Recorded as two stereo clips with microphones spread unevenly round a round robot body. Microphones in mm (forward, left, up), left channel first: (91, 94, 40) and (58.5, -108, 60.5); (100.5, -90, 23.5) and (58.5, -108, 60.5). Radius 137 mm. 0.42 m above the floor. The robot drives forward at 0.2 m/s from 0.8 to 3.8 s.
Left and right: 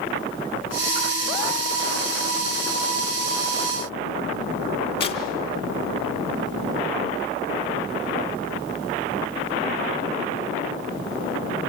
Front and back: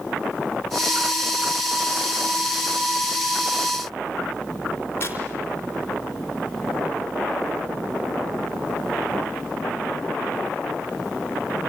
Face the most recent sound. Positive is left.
turn(degrees=125)